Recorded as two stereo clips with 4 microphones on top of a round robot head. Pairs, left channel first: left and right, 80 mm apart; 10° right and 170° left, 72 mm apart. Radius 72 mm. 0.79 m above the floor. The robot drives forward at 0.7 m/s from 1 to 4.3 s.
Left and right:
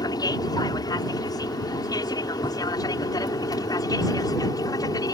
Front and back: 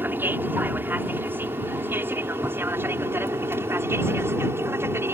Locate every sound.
0.0 s an aircraft: 115° left; by 5.1 s 120° left